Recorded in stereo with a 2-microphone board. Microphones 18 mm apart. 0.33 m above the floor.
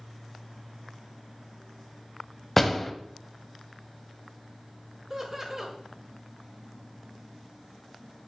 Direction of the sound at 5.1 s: 20° right (ahead or behind).